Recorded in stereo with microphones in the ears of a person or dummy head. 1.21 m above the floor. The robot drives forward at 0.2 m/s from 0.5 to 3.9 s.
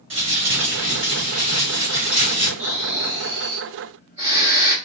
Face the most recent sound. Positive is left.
turn(degrees=-25)  # may be behind; listen again after turning